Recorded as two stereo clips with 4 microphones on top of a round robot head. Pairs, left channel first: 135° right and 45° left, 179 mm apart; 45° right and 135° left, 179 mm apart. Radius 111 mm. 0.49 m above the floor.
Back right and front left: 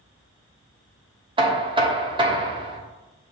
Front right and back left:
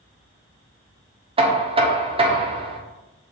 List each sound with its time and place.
1.4 s knocking: 95° left, 0.9 m